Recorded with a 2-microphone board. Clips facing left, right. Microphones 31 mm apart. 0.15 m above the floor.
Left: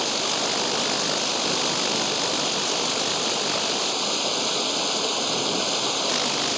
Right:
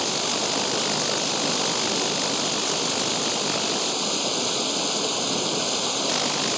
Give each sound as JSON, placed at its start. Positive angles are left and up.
{"t": 0.0, "sound": "running water", "side_deg": 10}